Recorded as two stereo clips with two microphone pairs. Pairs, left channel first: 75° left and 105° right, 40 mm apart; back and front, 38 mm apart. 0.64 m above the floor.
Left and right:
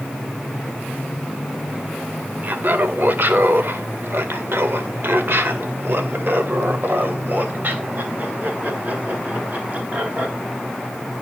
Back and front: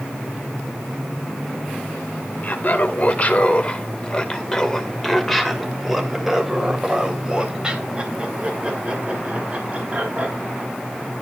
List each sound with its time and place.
2.4 s laughter: 140° right, 2 m; by 10.3 s 55° right, 4 m